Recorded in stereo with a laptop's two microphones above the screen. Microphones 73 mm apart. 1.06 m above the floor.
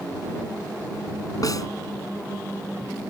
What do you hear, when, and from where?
1.4 s a snare drum: 55° left (ahead or behind)